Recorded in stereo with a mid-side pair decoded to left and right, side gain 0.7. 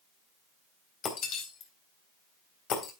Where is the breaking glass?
50° left, 3.5 m.